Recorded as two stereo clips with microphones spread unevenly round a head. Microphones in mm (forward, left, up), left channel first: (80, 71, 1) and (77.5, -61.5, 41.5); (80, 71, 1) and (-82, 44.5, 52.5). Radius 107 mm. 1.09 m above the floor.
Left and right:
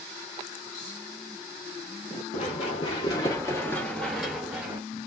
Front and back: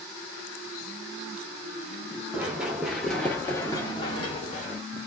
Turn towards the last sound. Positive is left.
turn(degrees=-55)